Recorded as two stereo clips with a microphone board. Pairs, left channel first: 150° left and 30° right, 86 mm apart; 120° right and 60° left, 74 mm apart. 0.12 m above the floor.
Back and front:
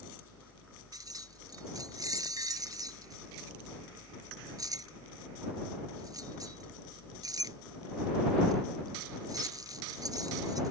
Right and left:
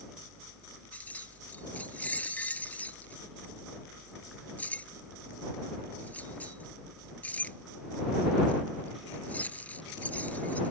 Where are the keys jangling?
55° right.